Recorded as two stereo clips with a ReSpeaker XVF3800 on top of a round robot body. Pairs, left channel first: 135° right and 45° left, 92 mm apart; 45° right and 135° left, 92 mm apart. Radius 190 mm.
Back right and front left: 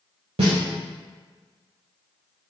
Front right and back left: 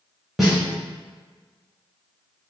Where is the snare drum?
50° left, 0.5 m.